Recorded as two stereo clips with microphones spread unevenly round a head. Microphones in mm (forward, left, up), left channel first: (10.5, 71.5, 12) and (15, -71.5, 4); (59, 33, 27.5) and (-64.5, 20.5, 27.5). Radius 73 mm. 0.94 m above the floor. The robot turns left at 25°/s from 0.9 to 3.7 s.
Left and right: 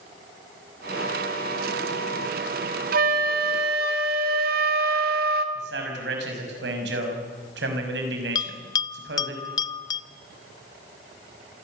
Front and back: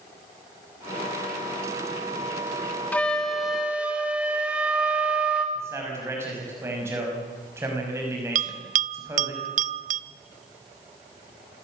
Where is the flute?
75° right, 1.8 m; by 5.5 s 95° right, 1.8 m.